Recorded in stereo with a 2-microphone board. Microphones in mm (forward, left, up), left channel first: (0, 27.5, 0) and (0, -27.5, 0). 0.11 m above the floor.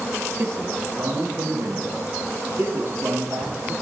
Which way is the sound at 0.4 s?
55° right (ahead or behind).